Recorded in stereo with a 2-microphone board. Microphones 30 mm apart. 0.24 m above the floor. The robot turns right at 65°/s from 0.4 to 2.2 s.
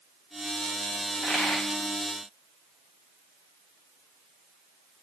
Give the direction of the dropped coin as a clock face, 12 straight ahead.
12 o'clock.